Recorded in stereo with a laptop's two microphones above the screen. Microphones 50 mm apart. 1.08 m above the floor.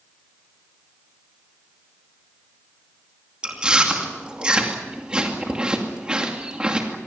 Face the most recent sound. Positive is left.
turn(degrees=-20)  # may be behind; listen again after turning